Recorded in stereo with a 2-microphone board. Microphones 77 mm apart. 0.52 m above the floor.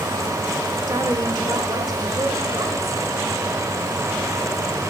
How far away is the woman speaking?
About 1.4 m.